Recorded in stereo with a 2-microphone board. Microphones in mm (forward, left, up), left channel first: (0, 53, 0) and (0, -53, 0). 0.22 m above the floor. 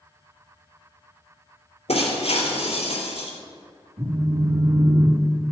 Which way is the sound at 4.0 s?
70° right (ahead or behind).